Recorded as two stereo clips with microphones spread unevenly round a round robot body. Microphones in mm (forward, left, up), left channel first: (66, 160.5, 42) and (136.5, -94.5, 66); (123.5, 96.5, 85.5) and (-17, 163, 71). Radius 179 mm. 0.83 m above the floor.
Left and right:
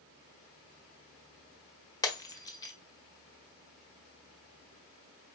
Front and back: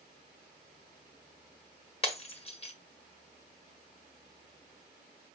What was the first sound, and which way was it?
Breaking glass, 25° left.